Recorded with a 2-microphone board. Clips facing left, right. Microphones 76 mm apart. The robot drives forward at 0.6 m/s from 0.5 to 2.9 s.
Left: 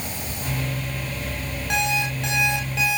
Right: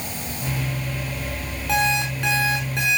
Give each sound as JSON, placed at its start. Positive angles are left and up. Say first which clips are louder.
{"t": 1.7, "sound": "an alarm clock", "louder": "right 3 dB", "side_deg": -85, "distance_m": 6.0}